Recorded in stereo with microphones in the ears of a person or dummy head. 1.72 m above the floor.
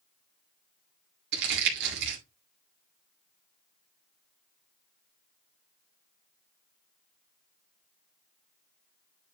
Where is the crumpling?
60° right (ahead or behind), 2.5 m.